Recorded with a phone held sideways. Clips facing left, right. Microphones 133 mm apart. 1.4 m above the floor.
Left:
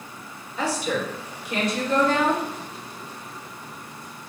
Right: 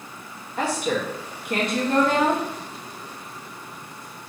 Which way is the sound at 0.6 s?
55° right (ahead or behind).